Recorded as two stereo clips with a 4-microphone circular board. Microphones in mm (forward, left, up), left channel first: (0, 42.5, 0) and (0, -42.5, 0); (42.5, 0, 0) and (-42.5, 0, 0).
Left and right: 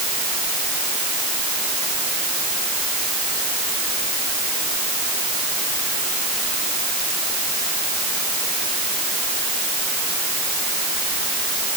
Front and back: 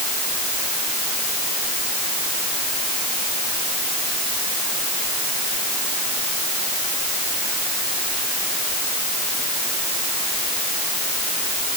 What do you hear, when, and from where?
Only background noise.